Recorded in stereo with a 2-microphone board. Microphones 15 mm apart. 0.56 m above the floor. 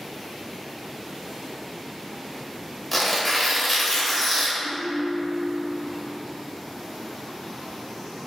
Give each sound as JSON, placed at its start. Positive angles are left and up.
{"t": 2.9, "sound": "tearing paper", "side_deg": 10, "distance_m": 0.9}
{"t": 4.6, "sound": "a ringtone", "side_deg": -10, "distance_m": 1.5}